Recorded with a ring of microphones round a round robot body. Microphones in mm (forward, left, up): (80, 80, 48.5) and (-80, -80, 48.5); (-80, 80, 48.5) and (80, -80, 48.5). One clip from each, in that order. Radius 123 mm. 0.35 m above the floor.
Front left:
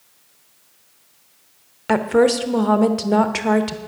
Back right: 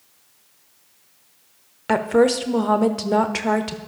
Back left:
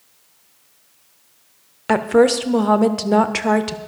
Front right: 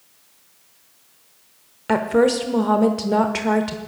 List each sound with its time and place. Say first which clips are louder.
1.9 s a woman speaking: front left 1 dB, back left 3 dB; 135° left, 0.9 m